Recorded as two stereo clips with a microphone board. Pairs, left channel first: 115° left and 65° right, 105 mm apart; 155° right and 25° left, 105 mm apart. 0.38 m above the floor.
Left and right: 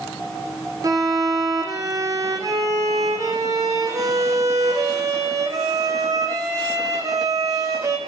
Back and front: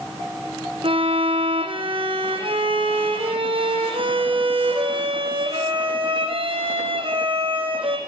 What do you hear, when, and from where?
0.8 s a violin: 10° right, 4 m